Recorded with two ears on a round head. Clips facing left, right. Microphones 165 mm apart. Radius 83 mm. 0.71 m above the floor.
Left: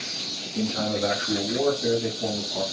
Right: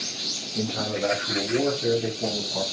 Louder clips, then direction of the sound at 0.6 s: Left 2 dB; 5° right (ahead or behind).